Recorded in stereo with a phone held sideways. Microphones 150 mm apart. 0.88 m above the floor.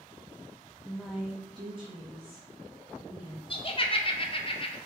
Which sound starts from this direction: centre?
A woman speaking, at 0.8 s.